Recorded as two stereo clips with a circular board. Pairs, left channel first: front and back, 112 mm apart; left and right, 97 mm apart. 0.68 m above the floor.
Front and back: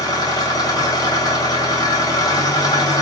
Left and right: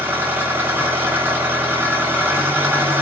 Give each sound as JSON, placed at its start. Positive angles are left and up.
{"t": 0.0, "sound": "an engine running", "azimuth_deg": -30, "distance_m": 0.7}